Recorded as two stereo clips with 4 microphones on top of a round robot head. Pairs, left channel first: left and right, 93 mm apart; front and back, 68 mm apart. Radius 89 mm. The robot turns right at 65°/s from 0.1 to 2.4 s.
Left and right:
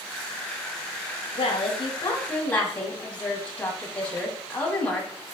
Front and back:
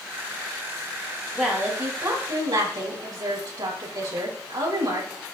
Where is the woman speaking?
95° left, 6 m; by 5.1 s 165° left, 6 m.